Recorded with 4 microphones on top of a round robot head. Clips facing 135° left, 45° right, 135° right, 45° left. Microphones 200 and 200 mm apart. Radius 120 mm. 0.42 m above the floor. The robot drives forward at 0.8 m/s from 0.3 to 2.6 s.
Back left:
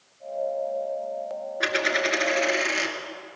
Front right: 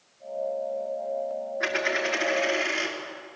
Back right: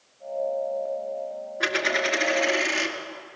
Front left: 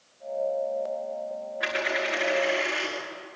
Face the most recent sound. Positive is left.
turn(degrees=-175)